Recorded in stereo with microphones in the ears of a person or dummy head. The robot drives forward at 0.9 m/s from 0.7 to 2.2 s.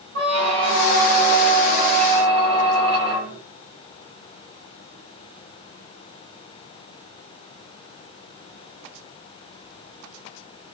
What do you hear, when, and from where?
0.1 s a squeak: 55° right (ahead or behind), 0.9 m; by 3.4 s 30° right (ahead or behind), 1.5 m